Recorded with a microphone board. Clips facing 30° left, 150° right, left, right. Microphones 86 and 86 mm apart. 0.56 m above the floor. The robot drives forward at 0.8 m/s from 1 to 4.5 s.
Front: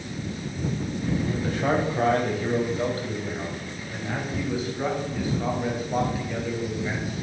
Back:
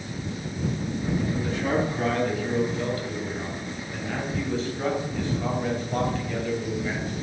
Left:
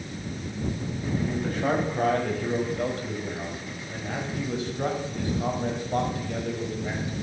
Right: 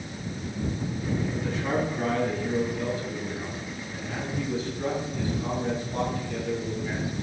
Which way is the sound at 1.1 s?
55° left.